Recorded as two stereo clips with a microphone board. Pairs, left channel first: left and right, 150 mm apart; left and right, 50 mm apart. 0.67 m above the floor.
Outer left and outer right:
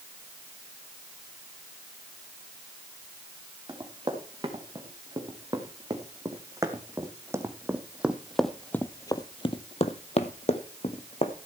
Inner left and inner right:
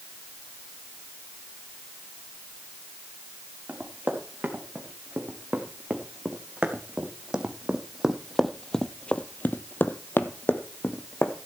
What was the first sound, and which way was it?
Running footsteps, 30° right (ahead or behind).